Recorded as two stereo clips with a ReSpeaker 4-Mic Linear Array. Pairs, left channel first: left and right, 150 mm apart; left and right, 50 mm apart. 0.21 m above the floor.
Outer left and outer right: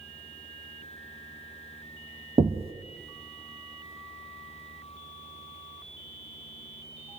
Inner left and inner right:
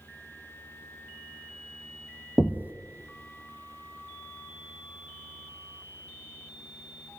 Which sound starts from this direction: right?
Knocking, at 2.4 s.